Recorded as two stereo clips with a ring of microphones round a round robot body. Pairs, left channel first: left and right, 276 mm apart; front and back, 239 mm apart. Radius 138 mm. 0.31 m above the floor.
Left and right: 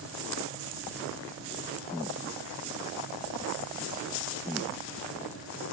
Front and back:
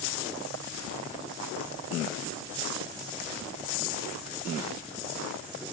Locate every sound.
Only background noise.